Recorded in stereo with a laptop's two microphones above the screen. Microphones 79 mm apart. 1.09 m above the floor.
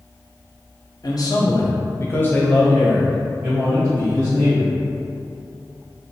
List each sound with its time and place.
1.0 s a man speaking: 50° left (ahead or behind), 0.8 m; by 4.7 s 20° right (ahead or behind), 1.6 m